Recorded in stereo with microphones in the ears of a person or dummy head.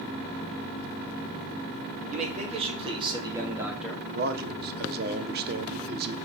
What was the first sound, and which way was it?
A man speaking, 35° right (ahead or behind).